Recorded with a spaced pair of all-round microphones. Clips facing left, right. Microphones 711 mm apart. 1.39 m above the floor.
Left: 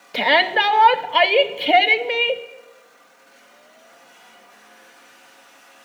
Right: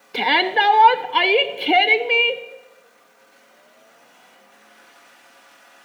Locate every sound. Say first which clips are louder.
0.1 s a shout: left 1 dB; 15° left (ahead or behind), 0.6 m